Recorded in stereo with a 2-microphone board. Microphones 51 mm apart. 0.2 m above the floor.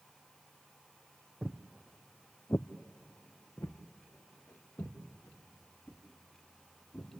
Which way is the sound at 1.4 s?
15° right (ahead or behind).